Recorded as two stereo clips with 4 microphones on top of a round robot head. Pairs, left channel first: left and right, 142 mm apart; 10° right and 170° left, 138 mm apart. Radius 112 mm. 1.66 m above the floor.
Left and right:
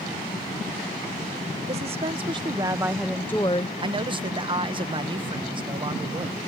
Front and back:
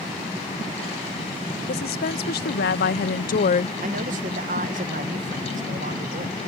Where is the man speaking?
145° right.